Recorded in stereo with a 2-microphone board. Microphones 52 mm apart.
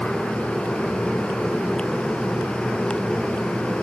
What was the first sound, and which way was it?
Only background noise.